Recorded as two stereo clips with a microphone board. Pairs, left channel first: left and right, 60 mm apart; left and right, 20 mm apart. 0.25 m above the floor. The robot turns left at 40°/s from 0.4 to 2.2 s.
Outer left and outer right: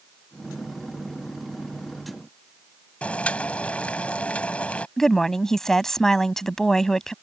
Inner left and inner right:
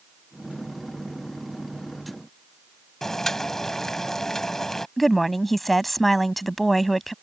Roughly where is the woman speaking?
Centre.